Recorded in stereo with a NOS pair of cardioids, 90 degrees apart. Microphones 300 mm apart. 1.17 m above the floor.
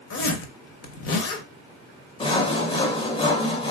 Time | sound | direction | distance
0.1 | a zipper | 50° left | 0.9 m
2.2 | sawing | 20° left | 0.6 m